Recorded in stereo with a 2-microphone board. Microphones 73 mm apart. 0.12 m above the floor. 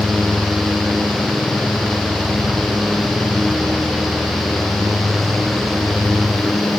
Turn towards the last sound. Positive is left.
No sound to turn to.